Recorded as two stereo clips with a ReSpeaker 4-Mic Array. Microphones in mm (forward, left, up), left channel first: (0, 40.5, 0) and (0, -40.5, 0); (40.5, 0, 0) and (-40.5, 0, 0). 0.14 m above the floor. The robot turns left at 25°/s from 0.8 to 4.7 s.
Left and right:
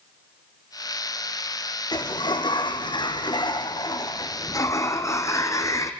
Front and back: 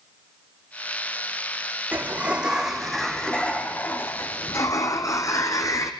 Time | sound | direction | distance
1.9 | a sliding door | 115° left | 2 m